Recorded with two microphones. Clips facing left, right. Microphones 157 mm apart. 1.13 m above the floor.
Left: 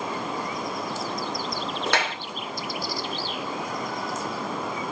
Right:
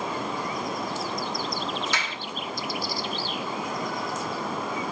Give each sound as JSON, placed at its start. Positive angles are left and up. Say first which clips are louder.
{"t": 1.9, "sound": "a clap", "louder": "left 6 dB", "side_deg": 70, "distance_m": 2.5}